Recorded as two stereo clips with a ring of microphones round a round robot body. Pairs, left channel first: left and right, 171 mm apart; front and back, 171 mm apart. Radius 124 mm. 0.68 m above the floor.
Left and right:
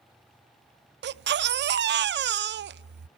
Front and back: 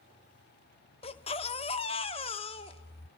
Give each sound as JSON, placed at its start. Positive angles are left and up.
{"t": 1.0, "sound": "a baby crying", "azimuth_deg": -65, "distance_m": 0.5}